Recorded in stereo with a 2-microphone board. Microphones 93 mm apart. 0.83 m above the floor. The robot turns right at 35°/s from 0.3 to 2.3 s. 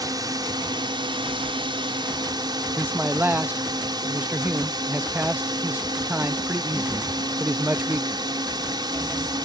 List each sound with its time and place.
0.0 s a drone: 130° right; by 9.5 s 60° right
2.8 s a man speaking: 20° right (ahead or behind)